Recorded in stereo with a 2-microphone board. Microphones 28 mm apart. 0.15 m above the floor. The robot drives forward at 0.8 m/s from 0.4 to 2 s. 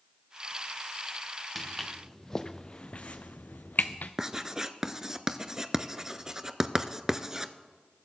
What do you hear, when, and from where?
1.6 s footsteps: centre (ahead or behind), 1.5 m; by 4.1 s 70° left (ahead or behind), 0.8 m
4.2 s writing: 20° right (ahead or behind), 0.5 m